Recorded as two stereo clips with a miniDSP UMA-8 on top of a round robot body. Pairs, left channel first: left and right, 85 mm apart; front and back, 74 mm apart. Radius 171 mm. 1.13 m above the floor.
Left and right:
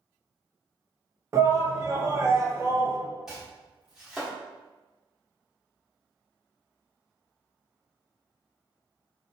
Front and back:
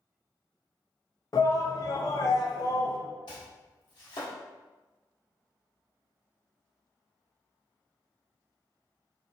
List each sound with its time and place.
1.3 s a shout: 35° right, 0.7 m
3.3 s chopping: 5° right, 1.4 m